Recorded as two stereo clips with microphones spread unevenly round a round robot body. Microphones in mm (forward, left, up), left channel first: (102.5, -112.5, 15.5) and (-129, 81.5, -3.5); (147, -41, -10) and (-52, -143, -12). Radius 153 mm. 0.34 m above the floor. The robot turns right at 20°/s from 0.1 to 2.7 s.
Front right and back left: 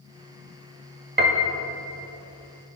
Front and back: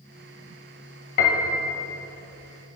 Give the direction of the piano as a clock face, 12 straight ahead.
9 o'clock.